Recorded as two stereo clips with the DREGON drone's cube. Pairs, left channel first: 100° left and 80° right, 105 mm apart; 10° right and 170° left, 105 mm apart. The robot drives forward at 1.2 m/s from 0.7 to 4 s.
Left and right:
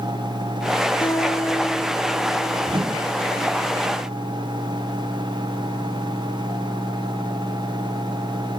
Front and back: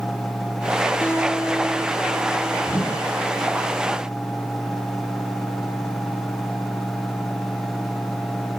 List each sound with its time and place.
1.0 s a guitar: 55° left, 2.5 m; by 2.6 s 100° left, 2.5 m
2.7 s a whoosh: 75° right, 3.5 m; by 3.1 s 85° right, 3.5 m